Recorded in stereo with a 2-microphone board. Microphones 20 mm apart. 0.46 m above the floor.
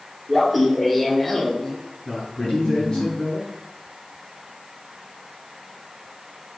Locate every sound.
0.3 s laughter: centre (ahead or behind), 1.6 m; by 3.0 s 35° left (ahead or behind), 2.5 m
2.0 s a man speaking: 45° left (ahead or behind), 5 m